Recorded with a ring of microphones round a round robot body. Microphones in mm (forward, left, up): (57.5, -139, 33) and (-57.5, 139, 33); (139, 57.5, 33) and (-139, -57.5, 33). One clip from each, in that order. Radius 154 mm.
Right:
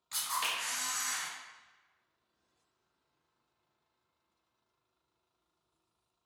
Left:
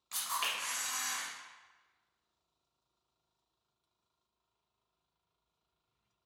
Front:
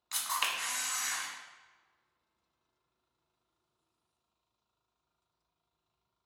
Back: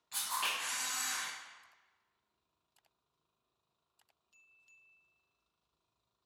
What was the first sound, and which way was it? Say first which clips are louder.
A camera shutter: right 1 dB, front 3 dB; 35° left.